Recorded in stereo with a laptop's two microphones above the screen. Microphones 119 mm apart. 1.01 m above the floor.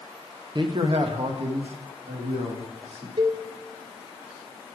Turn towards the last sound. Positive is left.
turn(degrees=-45)  # may be behind; listen again after turning